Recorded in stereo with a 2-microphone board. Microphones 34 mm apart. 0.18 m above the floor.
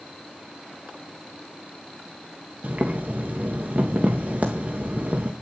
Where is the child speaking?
No child speaking in this recording.